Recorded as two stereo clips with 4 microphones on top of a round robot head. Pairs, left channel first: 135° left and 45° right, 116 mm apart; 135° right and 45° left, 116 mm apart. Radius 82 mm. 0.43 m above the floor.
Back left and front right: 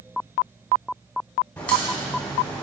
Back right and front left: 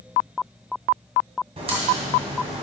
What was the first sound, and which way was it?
A crack, 60° left.